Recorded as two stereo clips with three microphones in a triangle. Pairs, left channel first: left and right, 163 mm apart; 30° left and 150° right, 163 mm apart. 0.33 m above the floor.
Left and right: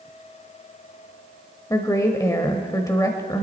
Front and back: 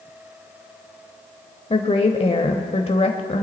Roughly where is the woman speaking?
Ahead left.